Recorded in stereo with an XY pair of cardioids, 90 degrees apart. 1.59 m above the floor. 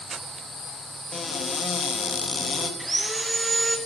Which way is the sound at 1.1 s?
35° left.